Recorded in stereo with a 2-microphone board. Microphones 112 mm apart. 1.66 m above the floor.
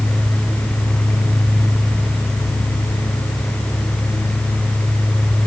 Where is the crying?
I don't hear crying.